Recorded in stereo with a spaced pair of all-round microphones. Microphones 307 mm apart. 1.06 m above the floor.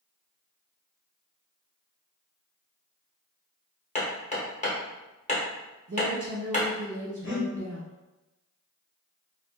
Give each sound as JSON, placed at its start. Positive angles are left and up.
{"t": 4.0, "sound": "hammering", "side_deg": 25, "distance_m": 0.9}
{"t": 5.9, "sound": "a woman speaking", "side_deg": -75, "distance_m": 1.1}
{"t": 7.2, "sound": "breathing", "side_deg": 40, "distance_m": 0.7}